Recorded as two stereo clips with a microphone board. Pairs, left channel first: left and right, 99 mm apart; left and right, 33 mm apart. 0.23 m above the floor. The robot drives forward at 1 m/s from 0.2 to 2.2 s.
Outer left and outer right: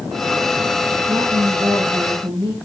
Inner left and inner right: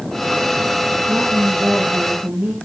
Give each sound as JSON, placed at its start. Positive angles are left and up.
{"t": 1.1, "sound": "a woman speaking", "side_deg": -35, "distance_m": 5.0}